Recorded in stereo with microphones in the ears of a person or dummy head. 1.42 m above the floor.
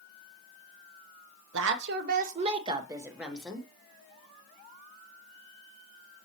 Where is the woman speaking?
70° right (ahead or behind), 0.8 m; by 3.7 s 5° left (ahead or behind), 1.1 m.